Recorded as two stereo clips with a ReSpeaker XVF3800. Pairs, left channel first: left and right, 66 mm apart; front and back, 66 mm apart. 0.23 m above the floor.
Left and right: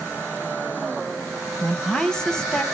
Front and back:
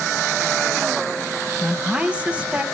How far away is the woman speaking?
About 1.1 m.